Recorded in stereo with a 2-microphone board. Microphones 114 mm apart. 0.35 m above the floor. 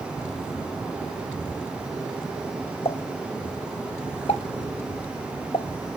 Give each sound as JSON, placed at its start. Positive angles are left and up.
{"t": 2.9, "sound": "a pop", "side_deg": 55, "distance_m": 0.5}